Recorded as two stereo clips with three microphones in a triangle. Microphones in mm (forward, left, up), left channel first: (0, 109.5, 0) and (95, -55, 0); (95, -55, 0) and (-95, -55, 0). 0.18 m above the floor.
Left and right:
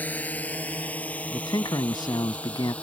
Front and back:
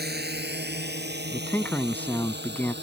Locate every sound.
0.0 s a drone: 160° right; by 2.9 s 155° right
1.3 s a man speaking: 70° left